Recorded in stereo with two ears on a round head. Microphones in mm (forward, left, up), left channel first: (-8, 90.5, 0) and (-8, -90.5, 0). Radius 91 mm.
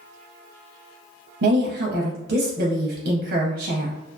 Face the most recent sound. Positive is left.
turn(degrees=-45)  # may be behind; listen again after turning